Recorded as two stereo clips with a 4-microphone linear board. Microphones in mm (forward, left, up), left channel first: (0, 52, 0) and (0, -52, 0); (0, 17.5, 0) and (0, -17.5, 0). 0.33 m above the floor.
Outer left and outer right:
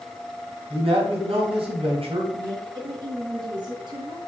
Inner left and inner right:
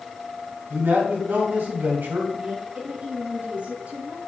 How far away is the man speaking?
About 3 m.